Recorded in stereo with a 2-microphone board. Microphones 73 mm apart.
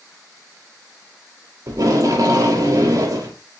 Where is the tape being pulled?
55° right (ahead or behind), 1.3 m.